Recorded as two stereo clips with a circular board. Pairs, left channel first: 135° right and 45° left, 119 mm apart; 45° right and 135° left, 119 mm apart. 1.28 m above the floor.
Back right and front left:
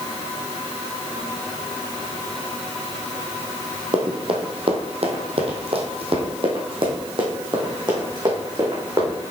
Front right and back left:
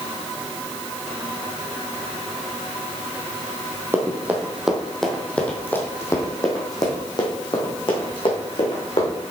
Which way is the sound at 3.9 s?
70° left.